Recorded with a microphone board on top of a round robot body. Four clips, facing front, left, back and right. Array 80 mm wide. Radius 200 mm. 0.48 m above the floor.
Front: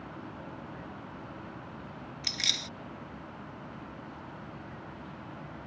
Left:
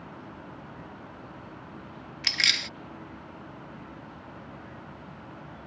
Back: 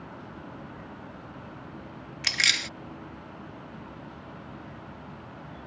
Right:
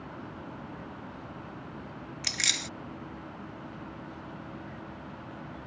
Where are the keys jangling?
155° left.